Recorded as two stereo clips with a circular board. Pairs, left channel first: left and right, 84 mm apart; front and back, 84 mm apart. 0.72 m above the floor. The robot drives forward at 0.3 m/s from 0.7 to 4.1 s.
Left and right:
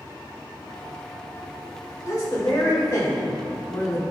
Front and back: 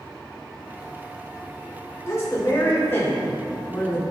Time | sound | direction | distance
2.1 | a woman speaking | 50° left | 2.5 m